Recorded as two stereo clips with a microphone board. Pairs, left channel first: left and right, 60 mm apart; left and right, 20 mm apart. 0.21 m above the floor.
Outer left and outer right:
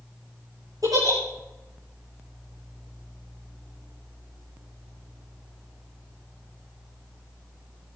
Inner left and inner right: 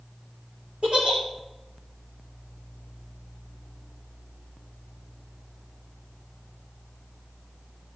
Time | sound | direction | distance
0.8 | a giggle | 75° right (ahead or behind) | 4.5 m